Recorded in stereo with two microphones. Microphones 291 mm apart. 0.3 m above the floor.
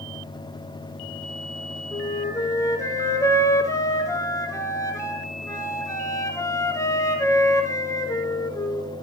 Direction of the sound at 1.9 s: 10° left (ahead or behind).